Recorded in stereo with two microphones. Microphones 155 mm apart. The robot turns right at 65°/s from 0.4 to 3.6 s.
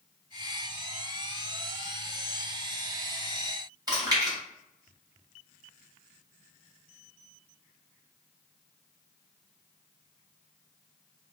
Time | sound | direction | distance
3.9 | chewing | 25° right (ahead or behind) | 1.9 m